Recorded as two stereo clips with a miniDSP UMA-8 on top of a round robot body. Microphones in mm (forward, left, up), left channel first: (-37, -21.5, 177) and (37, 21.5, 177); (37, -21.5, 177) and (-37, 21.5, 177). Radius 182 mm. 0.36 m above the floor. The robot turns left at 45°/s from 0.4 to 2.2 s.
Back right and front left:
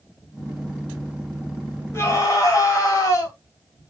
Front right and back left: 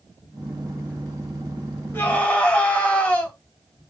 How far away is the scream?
About 4 m.